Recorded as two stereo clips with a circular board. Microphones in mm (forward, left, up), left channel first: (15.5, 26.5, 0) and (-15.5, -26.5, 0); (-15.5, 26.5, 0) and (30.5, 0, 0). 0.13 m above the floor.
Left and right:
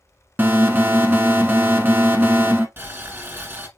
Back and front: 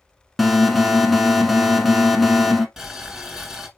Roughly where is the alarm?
Behind right.